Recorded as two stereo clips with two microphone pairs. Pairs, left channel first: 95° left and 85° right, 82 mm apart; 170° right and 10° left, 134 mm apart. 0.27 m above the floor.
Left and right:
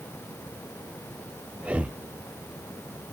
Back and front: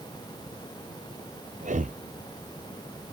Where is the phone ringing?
I don't hear a phone ringing.